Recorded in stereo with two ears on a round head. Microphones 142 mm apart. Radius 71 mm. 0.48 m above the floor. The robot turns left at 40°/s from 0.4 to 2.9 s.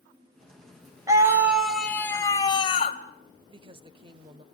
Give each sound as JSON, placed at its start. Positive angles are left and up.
{"t": 1.1, "sound": "a scream", "azimuth_deg": -155, "distance_m": 2.5}
{"t": 3.5, "sound": "a woman speaking", "side_deg": -35, "distance_m": 1.5}